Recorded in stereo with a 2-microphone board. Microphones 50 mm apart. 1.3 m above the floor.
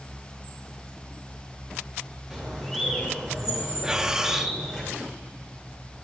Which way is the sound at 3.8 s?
15° right (ahead or behind).